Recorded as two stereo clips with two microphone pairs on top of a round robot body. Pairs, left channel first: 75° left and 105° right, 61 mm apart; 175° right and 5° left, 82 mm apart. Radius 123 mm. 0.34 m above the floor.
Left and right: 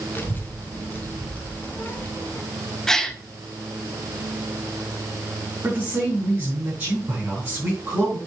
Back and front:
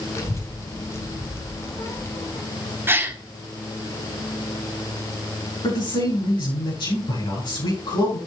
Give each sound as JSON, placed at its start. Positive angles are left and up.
{"t": 0.1, "sound": "a child speaking", "azimuth_deg": 135, "distance_m": 2.5}
{"t": 2.9, "sound": "a gasp", "azimuth_deg": -20, "distance_m": 1.4}
{"t": 5.6, "sound": "a man speaking", "azimuth_deg": -165, "distance_m": 5.5}